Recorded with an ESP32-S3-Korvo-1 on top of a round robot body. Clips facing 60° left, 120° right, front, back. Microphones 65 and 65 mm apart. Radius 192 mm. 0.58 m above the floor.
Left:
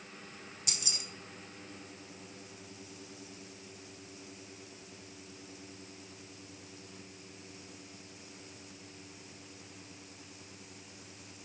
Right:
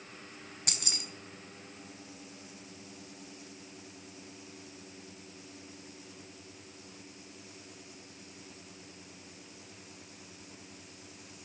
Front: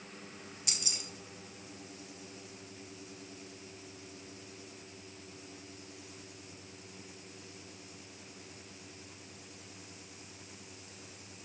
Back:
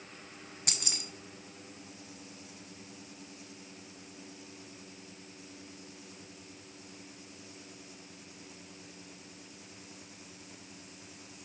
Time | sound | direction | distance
0.7 | keys jangling | 150° right | 1.4 m